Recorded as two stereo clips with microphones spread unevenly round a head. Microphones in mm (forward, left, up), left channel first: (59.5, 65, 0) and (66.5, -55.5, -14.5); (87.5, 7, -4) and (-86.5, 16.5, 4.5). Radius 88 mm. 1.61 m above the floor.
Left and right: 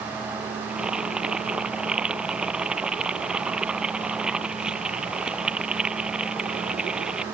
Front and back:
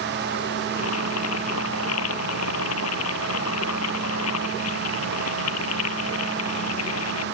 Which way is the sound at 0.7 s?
5° right.